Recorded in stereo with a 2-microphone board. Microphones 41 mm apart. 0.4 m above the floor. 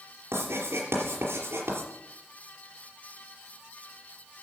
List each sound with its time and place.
0.3 s writing: 80° right, 5 m